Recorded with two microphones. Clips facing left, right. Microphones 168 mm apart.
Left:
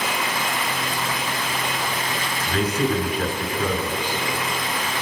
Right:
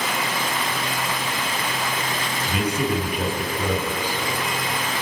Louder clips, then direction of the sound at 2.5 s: Left 2 dB; 10° right (ahead or behind).